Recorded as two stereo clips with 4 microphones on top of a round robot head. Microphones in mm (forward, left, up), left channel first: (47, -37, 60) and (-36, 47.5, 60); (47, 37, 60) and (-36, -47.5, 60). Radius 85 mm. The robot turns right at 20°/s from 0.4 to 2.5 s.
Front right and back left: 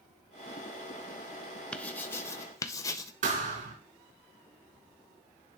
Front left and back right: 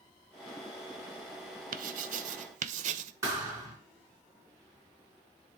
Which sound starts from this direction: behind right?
Writing, at 1.7 s.